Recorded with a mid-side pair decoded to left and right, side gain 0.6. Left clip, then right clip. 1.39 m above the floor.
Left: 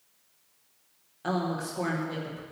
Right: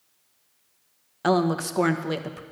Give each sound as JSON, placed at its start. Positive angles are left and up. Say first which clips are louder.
{"t": 1.2, "sound": "a woman speaking", "louder": "right 8 dB", "azimuth_deg": -55, "distance_m": 1.1}